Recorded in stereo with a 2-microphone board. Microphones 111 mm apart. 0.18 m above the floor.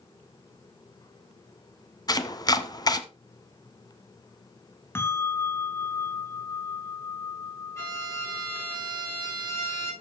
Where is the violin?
25° left (ahead or behind), 6 m.